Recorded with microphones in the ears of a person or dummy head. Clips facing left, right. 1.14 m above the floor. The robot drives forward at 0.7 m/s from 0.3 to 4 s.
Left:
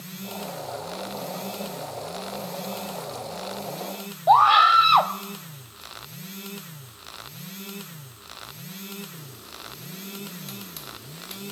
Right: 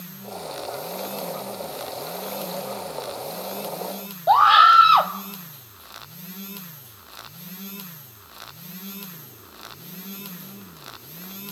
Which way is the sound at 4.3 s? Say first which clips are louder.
Even; 5° right (ahead or behind).